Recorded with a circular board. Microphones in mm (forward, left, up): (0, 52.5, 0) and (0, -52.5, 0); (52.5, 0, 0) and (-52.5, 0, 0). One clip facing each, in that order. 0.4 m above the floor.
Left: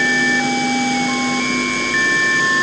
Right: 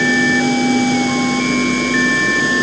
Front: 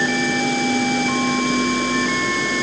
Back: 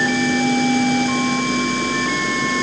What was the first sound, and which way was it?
Only background noise.